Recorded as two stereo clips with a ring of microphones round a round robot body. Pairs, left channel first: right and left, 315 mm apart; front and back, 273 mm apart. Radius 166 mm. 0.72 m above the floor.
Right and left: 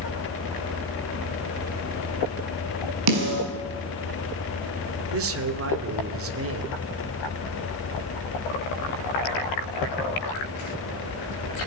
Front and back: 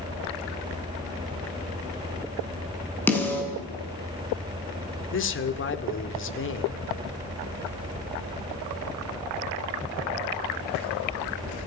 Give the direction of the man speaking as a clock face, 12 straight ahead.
11 o'clock.